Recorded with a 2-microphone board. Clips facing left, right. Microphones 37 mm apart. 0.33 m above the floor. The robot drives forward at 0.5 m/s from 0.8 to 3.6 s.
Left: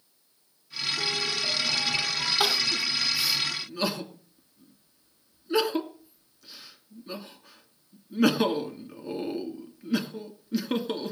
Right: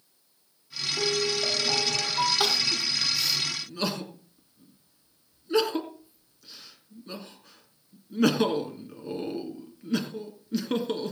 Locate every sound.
1.0 s a piano: 70° right (ahead or behind), 7.5 m; by 2.3 s 65° right (ahead or behind), 8 m
2.4 s crying: 10° left (ahead or behind), 1.8 m; by 11.1 s 5° left (ahead or behind), 2.5 m